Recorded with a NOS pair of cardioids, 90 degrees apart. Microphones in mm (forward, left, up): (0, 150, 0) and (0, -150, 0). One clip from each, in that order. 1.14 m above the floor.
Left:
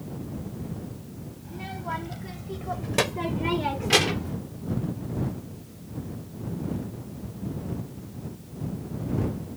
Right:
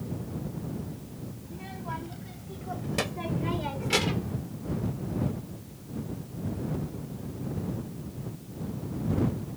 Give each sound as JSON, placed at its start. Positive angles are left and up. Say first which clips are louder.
{"t": 1.4, "sound": "a child speaking", "louder": "left 6 dB", "azimuth_deg": 45}